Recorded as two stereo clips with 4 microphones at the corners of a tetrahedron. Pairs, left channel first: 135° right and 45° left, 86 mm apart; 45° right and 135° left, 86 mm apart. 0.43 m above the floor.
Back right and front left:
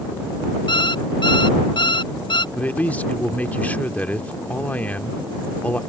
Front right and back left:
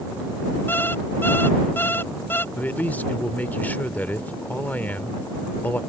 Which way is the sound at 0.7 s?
110° right.